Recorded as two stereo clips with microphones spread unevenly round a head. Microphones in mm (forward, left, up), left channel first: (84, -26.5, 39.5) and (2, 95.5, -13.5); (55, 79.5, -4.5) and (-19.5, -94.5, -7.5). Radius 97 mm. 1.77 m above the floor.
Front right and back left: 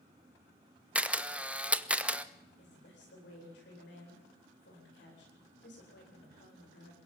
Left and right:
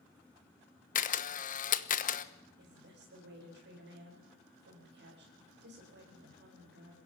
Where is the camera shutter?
30° left, 1.2 m.